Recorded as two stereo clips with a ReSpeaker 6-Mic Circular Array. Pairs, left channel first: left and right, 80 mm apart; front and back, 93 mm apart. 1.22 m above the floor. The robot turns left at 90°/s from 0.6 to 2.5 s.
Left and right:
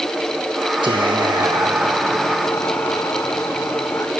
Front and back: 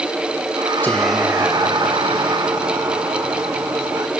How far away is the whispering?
About 1.2 m.